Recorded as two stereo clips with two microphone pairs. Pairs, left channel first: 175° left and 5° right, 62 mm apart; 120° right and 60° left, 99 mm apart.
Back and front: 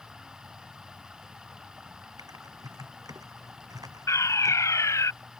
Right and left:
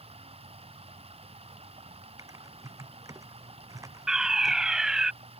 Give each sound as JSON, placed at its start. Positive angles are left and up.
{"t": 0.0, "sound": "running water", "azimuth_deg": 75}
{"t": 2.2, "sound": "typing on a keyboard", "azimuth_deg": 5}
{"t": 4.1, "sound": "a fire alarm", "azimuth_deg": 145}